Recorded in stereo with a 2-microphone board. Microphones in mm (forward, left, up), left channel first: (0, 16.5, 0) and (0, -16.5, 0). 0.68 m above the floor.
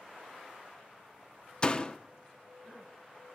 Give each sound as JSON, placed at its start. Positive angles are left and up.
{"t": 1.6, "sound": "a door slam", "side_deg": 25, "distance_m": 0.8}